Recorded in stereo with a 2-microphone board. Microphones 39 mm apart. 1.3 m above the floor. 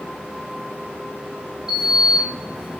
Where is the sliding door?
15° right (ahead or behind), 1.4 m.